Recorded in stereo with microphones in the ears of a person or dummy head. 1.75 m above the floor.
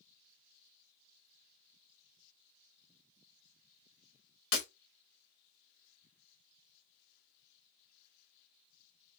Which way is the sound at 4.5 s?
25° left (ahead or behind).